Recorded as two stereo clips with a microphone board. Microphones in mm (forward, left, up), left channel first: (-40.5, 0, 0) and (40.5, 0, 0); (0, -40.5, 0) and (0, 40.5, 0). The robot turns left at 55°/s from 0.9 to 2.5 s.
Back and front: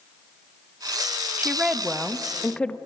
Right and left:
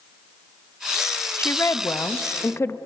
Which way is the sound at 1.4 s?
55° right.